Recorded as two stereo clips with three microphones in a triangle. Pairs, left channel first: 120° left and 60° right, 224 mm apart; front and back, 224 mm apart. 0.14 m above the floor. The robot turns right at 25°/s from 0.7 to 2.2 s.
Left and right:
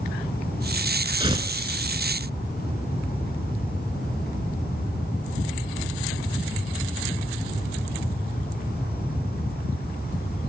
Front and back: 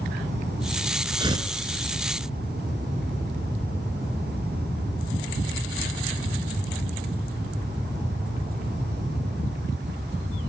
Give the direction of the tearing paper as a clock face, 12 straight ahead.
4 o'clock.